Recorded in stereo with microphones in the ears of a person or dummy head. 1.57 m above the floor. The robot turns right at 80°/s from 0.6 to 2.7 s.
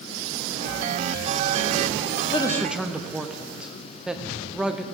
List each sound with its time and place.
2.3 s a man speaking: 25° left (ahead or behind), 0.6 m; by 4.8 s 5° right (ahead or behind), 0.6 m